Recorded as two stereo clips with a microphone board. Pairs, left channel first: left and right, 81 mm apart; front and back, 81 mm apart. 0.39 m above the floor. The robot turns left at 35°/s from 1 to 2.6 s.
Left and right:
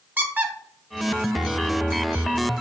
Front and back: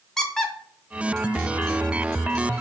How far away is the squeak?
About 0.6 m.